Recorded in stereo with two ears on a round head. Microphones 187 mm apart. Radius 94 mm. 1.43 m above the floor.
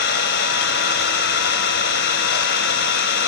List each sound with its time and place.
0.0 s an engine running: 50° left (ahead or behind), 3 m